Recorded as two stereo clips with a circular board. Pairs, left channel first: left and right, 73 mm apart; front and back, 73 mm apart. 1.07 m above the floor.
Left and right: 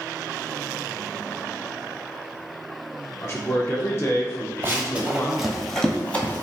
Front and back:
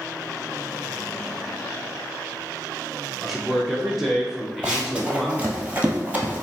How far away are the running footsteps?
About 1.2 m.